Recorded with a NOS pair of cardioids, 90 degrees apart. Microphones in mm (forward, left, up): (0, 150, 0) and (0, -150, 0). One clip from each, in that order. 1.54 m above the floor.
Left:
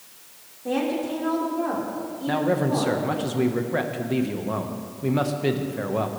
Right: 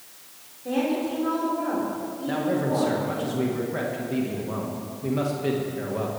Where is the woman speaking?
35° left, 4.5 m.